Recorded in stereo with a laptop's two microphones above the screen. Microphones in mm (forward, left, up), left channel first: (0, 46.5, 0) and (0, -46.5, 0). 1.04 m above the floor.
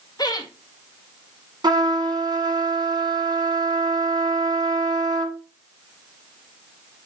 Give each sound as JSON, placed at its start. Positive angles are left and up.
{"t": 0.2, "sound": "laughter", "side_deg": 45, "distance_m": 1.8}
{"t": 1.6, "sound": "a trumpet", "side_deg": -50, "distance_m": 1.4}